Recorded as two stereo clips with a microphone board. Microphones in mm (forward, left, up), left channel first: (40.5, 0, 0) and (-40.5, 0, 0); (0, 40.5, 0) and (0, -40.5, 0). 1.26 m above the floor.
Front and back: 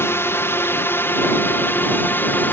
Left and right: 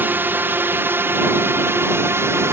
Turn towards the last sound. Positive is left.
turn(degrees=-50)